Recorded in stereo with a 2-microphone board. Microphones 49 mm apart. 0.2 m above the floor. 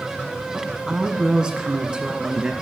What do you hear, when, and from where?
0.5 s a woman speaking: 10° right (ahead or behind), 1.4 m; by 2.5 s 20° right (ahead or behind), 2.5 m